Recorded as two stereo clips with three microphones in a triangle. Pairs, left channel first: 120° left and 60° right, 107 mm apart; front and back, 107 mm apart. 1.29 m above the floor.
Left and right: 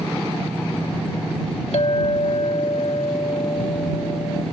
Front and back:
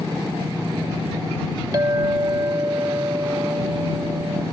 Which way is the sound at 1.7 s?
130° left.